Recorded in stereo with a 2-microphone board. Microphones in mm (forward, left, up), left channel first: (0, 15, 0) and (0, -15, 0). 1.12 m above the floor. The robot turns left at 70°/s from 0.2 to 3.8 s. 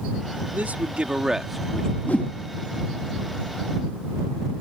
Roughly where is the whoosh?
Left.